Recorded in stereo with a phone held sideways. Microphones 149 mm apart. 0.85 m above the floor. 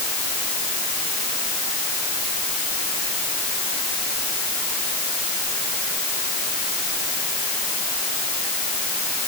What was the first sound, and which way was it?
Only background noise.